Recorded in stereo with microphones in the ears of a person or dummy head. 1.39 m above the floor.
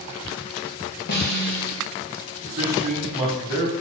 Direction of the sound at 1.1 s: 45° left (ahead or behind).